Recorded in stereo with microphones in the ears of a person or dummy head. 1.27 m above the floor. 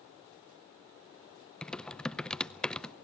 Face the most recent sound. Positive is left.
turn(degrees=5)  # may be behind; listen again after turning